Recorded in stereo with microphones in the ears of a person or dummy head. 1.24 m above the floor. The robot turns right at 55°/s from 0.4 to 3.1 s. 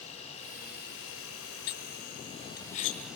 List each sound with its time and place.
0.0 s an insect: 40° left, 2 m; by 3.2 s 175° right, 2 m
1.7 s cutlery clinking: 50° left (ahead or behind), 0.8 m; by 3.0 s 25° left (ahead or behind), 0.8 m